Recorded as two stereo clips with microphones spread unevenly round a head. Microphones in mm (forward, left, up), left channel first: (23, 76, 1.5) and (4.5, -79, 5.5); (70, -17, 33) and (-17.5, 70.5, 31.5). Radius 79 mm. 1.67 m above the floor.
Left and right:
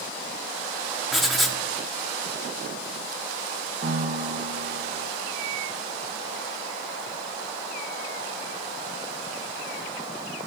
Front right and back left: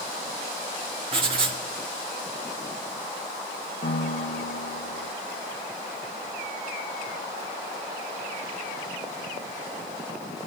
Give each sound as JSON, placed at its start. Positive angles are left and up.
{"t": 1.1, "sound": "writing", "azimuth_deg": 175, "distance_m": 1.4}
{"t": 3.8, "sound": "a piano", "azimuth_deg": -65, "distance_m": 1.2}